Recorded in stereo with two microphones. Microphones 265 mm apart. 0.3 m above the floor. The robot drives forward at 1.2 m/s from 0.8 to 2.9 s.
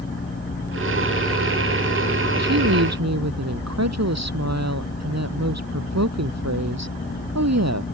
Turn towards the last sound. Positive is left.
turn(degrees=-80)